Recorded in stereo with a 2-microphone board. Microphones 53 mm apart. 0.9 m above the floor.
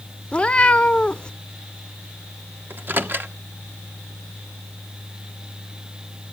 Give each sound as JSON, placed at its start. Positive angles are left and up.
{"t": 0.3, "sound": "a cat meowing", "side_deg": 20, "distance_m": 0.5}
{"t": 2.7, "sound": "a microwave", "side_deg": -40, "distance_m": 0.9}